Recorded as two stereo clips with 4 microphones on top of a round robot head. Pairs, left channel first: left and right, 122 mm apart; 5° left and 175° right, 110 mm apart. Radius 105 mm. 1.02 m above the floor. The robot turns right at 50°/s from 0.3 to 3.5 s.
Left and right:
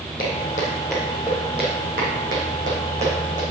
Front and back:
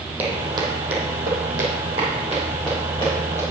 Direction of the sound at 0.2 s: 110° left.